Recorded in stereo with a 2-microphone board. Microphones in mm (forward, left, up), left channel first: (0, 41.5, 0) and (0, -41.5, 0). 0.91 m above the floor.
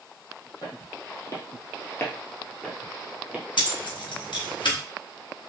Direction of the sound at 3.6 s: 75° left (ahead or behind).